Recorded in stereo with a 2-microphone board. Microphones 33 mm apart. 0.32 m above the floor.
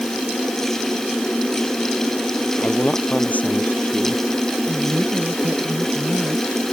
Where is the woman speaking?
75° right (ahead or behind).